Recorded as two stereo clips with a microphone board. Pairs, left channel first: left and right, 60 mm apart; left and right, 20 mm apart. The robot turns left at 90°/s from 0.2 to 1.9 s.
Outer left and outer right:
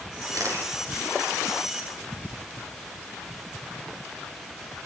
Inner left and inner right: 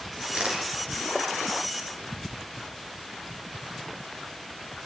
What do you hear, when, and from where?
0.3 s a camera shutter: 105° right, 9.5 m; by 0.7 s 140° right, 9.5 m